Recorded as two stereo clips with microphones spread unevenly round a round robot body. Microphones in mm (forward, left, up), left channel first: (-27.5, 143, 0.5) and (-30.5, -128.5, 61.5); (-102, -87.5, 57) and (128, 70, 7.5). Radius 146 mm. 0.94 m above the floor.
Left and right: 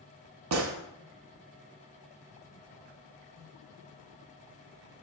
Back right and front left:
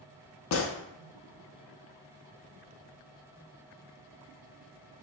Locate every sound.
0.5 s a gunshot: 110° right, 0.5 m